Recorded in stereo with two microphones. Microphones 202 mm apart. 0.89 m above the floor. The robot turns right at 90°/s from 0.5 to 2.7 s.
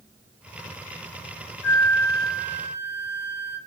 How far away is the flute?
About 1.1 m.